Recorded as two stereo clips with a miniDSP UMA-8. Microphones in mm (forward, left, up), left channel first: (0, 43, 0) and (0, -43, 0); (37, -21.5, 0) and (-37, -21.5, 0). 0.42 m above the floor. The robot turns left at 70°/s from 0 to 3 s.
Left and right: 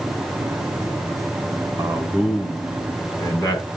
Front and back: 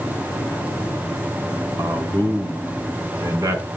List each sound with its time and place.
1.8 s a man speaking: 135° right, 3.5 m; by 3.7 s 140° left, 3.5 m